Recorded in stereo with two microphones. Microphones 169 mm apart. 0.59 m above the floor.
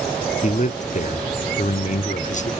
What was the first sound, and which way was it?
A man speaking, 45° left (ahead or behind).